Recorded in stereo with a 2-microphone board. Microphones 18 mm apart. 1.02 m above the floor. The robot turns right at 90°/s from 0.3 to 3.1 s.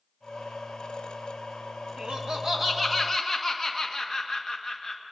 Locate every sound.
2.0 s laughter: 75° right, 1.5 m; by 5.0 s 25° left, 1.5 m